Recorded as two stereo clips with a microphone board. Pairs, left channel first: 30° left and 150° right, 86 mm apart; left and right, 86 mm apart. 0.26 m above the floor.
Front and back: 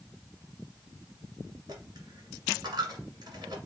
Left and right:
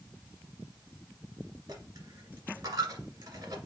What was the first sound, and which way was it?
A dropped coin, 115° right.